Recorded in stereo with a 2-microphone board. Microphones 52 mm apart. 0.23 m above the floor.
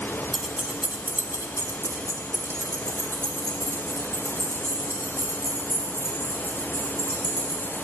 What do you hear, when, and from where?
0.3 s keys jangling: 5° right (ahead or behind), 1.3 m; by 7.8 s 45° right (ahead or behind), 7 m